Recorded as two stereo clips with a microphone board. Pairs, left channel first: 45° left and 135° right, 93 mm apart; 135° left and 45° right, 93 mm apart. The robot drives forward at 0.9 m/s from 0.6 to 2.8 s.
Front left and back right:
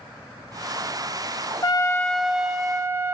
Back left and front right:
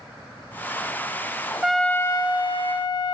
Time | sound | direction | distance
1.6 | a trumpet | 40° left | 0.6 m